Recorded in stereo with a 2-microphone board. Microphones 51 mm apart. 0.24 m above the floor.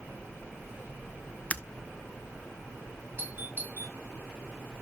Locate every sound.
1.5 s breaking glass: 30° left (ahead or behind), 0.7 m
3.2 s a doorbell: 40° right (ahead or behind), 2 m